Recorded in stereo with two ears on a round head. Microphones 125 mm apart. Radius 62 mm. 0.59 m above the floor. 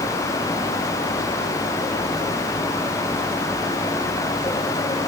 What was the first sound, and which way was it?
Only background noise.